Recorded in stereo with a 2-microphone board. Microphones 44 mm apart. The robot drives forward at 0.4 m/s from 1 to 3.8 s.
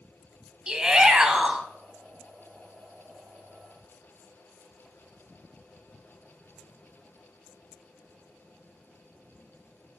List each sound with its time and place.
0.7 s a shout: 20° right (ahead or behind), 1.3 m; by 1.6 s 15° right (ahead or behind), 1.4 m